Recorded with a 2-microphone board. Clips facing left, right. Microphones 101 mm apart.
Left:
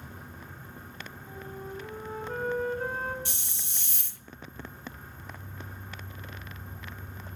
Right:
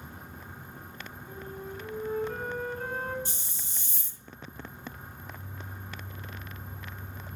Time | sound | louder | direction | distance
1.3 | a flute | even | 25° left (ahead or behind) | 6.5 m
3.2 | a hiss | left 1 dB | 65° left (ahead or behind) | 0.7 m